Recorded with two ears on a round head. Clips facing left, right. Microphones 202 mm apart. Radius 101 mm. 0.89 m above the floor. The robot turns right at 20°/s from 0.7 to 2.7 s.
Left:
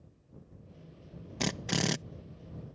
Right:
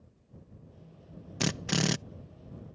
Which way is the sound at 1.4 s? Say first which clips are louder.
Right 2 dB; 5° right (ahead or behind).